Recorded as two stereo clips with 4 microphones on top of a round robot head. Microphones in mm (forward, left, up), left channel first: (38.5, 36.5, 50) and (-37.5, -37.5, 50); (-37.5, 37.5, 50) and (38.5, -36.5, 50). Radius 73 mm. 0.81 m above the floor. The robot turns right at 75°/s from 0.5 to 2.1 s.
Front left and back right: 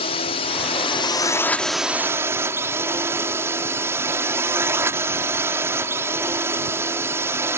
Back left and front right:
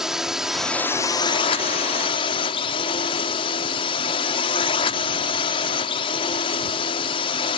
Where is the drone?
40° left; by 7.6 s 160° left.